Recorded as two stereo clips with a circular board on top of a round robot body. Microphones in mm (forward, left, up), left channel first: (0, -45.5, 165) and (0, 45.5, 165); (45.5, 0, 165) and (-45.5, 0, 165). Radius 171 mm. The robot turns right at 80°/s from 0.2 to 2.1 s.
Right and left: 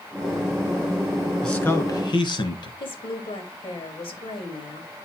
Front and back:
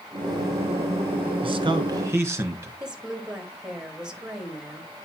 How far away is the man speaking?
About 1.9 m.